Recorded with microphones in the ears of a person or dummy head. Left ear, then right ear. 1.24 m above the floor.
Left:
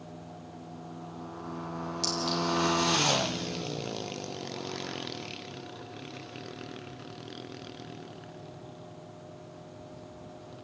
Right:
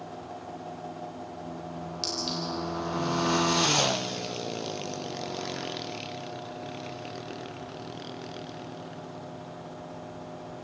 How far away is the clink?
About 4 m.